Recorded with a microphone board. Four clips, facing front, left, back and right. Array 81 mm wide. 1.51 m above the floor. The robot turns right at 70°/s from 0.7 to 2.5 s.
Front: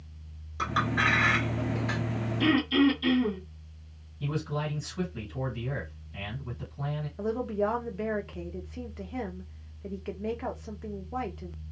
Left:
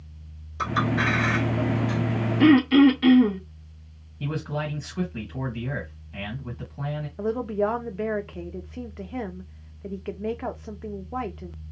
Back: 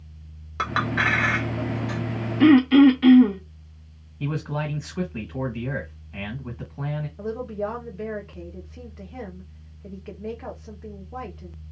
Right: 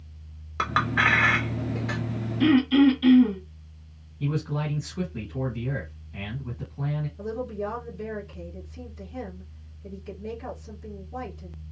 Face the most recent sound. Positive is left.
turn(degrees=80)